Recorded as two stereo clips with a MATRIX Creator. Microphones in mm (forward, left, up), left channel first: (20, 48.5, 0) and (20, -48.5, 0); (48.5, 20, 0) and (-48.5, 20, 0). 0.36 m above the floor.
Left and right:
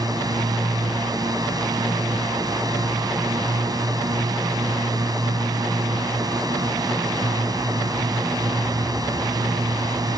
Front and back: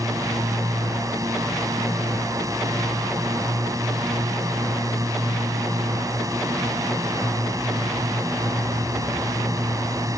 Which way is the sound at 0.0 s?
130° right.